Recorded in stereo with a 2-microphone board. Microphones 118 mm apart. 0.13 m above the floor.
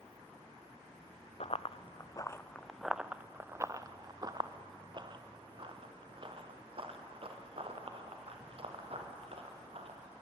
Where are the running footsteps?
65° left (ahead or behind), 0.8 m; by 10.0 s 55° right (ahead or behind), 4.5 m.